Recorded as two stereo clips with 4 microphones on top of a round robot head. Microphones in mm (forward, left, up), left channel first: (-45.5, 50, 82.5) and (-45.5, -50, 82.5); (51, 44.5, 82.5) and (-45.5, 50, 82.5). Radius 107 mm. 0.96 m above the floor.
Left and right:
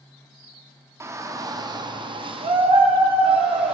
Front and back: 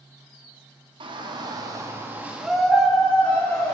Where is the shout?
150° right, 3 m; by 3.8 s 60° right, 3.5 m.